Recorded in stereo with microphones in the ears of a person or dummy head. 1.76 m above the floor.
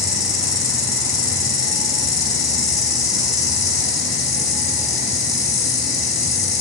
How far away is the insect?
About 2.5 m.